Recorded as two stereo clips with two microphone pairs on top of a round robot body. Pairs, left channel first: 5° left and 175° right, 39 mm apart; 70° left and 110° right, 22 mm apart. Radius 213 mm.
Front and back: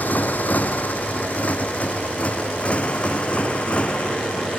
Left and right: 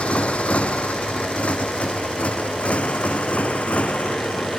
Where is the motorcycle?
50° left; by 4.6 s 70° left.